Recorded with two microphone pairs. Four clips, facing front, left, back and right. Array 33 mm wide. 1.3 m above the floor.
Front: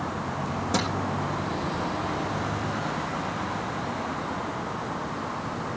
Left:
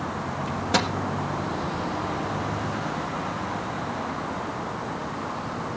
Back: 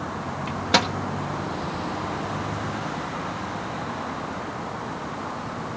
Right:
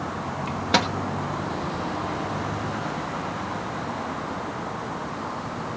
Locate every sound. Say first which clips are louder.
0.5 s a microwave: right 2 dB, back 7 dB; 145° right, 2 m